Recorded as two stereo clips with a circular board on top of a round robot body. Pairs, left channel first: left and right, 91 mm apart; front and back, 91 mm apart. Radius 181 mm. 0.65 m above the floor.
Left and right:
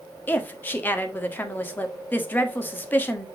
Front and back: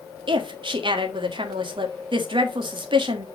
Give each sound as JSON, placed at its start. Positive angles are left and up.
{"t": 0.3, "sound": "a woman speaking", "azimuth_deg": 160, "distance_m": 1.9}